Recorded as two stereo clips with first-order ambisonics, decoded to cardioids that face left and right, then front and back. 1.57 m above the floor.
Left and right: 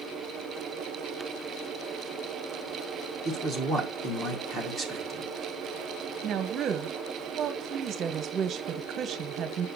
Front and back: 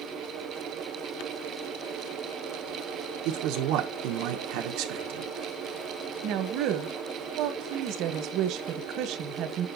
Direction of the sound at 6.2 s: 145° right.